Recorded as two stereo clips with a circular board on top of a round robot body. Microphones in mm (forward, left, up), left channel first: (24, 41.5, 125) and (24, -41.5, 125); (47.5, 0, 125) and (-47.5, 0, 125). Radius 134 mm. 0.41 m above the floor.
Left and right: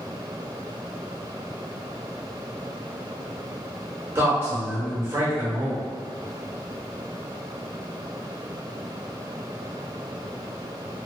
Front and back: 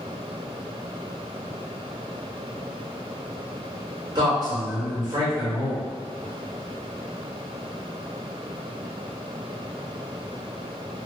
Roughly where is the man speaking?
Behind right.